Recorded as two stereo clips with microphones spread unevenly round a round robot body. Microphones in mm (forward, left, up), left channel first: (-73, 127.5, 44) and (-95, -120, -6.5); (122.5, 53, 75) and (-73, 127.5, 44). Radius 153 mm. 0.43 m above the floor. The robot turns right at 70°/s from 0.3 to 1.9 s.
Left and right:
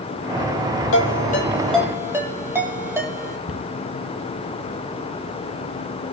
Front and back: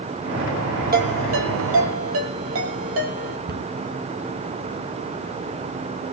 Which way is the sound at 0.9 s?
115° left.